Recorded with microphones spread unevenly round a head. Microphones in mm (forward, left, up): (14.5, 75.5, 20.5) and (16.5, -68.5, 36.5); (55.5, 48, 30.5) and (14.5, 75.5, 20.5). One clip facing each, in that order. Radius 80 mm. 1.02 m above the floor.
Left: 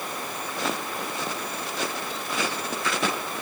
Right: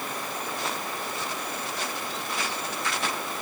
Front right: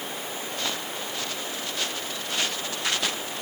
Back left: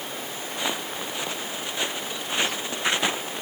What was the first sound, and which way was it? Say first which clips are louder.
Footsteps: left 6 dB, back left 4 dB; 75° left.